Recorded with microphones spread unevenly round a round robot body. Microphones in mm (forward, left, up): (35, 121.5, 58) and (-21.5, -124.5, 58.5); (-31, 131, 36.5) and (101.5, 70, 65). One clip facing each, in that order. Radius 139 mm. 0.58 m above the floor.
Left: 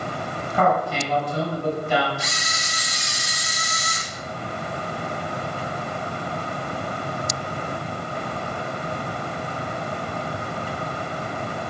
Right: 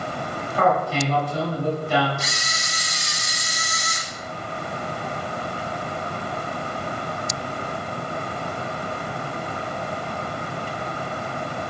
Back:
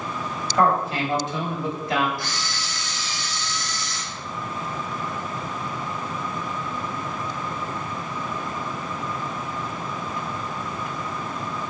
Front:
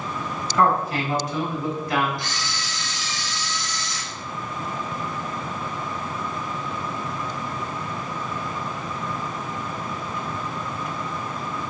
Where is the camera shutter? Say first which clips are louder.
Even, even; 100° right, 1.6 m.